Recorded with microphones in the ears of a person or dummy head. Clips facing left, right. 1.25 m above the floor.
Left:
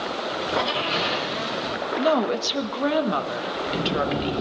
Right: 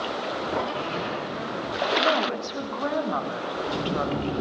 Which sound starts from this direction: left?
A woman speaking, at 2.0 s.